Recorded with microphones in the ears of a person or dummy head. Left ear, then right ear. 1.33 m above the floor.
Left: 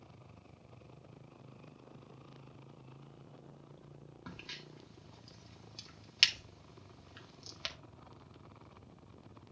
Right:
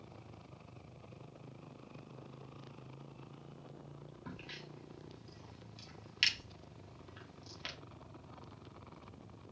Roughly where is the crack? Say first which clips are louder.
Left 2 dB; left.